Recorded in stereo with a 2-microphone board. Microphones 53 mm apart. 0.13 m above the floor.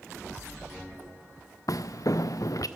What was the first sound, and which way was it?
Footsteps, 75° left (ahead or behind).